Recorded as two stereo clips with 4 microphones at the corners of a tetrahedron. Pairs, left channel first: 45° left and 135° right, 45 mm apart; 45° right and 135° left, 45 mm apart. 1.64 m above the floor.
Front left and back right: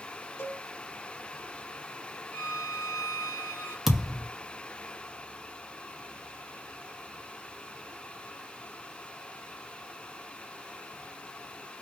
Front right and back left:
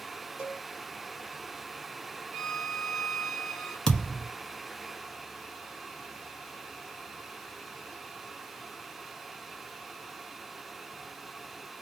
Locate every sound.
0.4 s a cowbell: 60° left, 2 m
2.3 s a violin: 60° left, 2.5 m
3.9 s a thud: 65° right, 1.0 m